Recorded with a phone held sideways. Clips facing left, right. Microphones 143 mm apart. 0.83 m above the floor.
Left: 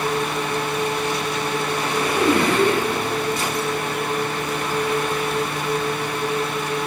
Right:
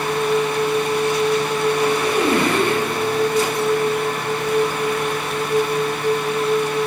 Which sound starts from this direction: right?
A machine running, at 0.0 s.